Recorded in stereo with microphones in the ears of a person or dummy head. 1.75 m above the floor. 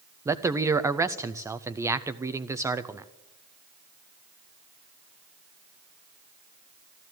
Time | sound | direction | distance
0.2 | a man speaking | 15° right (ahead or behind) | 0.6 m